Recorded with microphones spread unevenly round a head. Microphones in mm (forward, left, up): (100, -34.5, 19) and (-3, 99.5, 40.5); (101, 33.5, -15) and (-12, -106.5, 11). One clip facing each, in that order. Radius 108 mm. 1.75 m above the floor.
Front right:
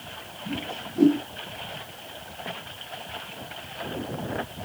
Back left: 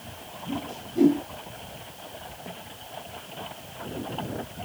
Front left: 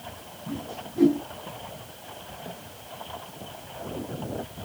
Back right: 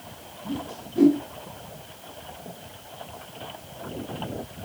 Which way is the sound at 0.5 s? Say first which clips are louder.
Even, back right 2 dB; 175° right.